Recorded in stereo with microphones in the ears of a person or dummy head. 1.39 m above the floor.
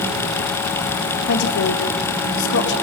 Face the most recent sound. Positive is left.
turn(degrees=70)  # may be behind; listen again after turning